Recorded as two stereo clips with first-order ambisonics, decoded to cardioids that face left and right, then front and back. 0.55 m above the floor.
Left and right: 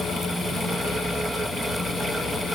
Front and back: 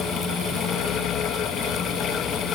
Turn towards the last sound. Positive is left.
No sound to turn to.